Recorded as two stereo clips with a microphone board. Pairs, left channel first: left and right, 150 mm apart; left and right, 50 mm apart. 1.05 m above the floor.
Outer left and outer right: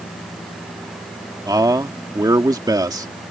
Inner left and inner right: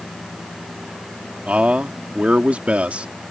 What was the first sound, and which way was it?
A man speaking, 25° right (ahead or behind).